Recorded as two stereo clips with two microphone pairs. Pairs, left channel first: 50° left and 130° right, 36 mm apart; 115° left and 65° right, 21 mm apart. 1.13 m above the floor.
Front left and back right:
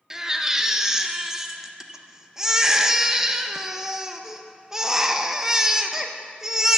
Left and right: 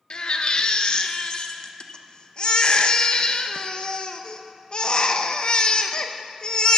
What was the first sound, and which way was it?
A baby crying, 160° left.